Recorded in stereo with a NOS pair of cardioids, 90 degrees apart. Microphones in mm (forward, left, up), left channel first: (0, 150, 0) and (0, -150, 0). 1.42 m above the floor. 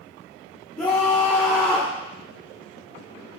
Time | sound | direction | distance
0.8 | a scream | 5° left | 1.5 m